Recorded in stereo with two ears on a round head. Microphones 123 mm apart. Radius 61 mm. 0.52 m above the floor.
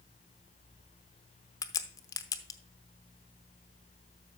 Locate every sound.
1.6 s a crack: 25° left (ahead or behind), 0.8 m